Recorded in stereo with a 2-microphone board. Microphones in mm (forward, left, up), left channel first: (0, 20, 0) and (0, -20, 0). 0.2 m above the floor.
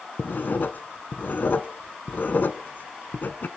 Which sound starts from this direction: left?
Writing, at 0.2 s.